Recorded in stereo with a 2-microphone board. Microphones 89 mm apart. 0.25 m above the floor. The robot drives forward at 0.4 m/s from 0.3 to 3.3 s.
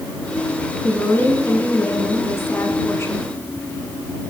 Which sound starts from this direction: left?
A woman speaking, at 0.8 s.